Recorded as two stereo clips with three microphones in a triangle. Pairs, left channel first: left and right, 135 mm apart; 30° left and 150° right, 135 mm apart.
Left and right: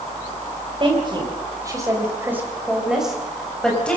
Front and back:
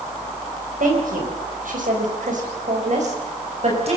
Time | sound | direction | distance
0.8 | a woman speaking | 140° right | 5.5 m